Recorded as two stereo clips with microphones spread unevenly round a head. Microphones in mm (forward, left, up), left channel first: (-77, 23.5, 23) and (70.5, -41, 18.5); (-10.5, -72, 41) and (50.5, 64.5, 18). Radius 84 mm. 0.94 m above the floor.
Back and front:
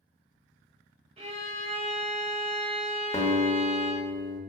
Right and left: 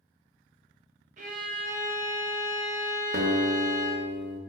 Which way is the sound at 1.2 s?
30° left.